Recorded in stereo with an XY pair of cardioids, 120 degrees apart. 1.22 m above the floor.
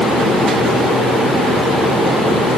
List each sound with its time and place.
Only background noise.